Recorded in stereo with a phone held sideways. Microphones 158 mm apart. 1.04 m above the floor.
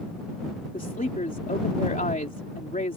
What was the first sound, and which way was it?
A woman speaking, 65° left (ahead or behind).